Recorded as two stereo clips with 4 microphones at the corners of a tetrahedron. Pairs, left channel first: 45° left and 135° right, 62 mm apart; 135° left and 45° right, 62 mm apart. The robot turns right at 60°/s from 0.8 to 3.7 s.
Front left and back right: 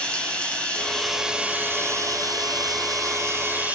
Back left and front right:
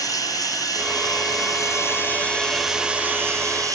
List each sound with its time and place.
0.0 s running water: 115° left, 4.5 m; by 3.8 s 70° right, 4.5 m